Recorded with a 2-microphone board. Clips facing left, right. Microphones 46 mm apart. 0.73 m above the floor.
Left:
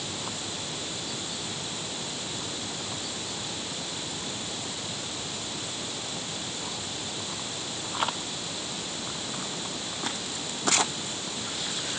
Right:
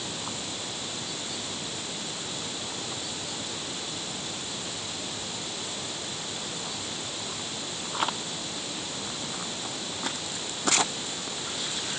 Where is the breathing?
I don't hear breathing.